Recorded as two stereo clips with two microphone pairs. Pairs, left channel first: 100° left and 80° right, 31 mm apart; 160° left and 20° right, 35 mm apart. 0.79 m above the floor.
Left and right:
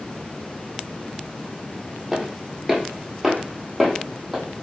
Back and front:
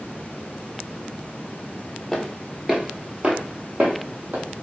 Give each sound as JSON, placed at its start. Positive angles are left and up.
{"t": 2.1, "sound": "footsteps", "azimuth_deg": -135, "distance_m": 0.8}